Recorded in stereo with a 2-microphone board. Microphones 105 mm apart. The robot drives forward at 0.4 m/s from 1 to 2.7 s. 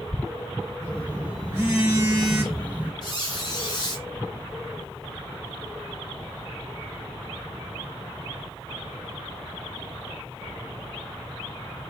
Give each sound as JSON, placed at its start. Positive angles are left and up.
{"t": 0.8, "sound": "a phone buzzing", "side_deg": -15, "distance_m": 1.6}
{"t": 3.0, "sound": "a squeak", "side_deg": 45, "distance_m": 1.4}